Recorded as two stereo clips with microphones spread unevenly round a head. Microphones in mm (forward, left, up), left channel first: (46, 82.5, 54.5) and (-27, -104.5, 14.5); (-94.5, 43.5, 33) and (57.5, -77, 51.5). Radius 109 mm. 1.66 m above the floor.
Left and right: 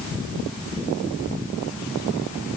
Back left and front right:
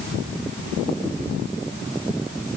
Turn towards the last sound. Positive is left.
No sound to turn to.